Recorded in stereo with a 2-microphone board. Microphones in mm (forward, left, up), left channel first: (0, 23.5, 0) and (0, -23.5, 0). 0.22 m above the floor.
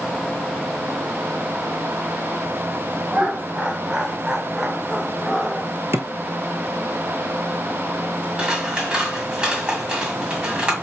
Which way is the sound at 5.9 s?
65° right (ahead or behind).